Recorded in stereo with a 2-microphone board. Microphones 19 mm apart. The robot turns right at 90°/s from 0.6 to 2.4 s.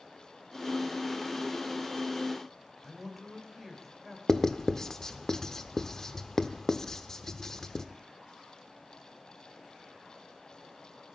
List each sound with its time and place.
2.8 s a man speaking: centre (ahead or behind), 3 m
4.3 s writing: 25° left (ahead or behind), 0.7 m